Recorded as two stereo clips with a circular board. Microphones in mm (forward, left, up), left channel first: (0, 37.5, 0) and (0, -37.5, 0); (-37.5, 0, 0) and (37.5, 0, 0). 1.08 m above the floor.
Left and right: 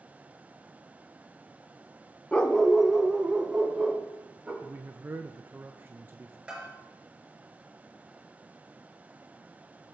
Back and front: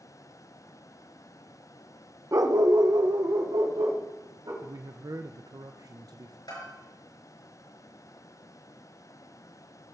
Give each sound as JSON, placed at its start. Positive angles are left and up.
{"t": 2.3, "sound": "a dog barking", "azimuth_deg": 25, "distance_m": 0.6}
{"t": 4.6, "sound": "a man speaking", "azimuth_deg": -30, "distance_m": 0.5}
{"t": 6.5, "sound": "a bell", "azimuth_deg": -165, "distance_m": 4.0}